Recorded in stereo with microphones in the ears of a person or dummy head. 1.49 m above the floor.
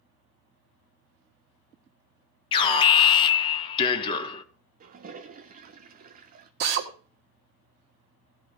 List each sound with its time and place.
2.5 s an alarm: 30° left (ahead or behind), 1.1 m
4.8 s a toilet flushing: 40° right (ahead or behind), 0.8 m
6.6 s a drill: 55° right (ahead or behind), 1.7 m